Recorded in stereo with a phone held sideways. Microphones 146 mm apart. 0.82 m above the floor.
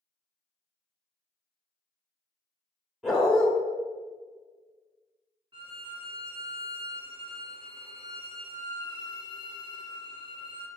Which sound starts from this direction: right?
A violin, at 5.5 s.